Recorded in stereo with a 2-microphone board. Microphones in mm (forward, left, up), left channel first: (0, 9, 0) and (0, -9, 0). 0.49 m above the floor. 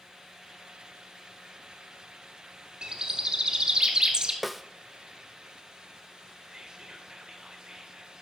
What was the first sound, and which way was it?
A bird, 50° right (ahead or behind).